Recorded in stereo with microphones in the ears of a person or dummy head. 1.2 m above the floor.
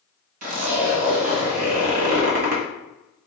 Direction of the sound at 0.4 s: 50° right (ahead or behind).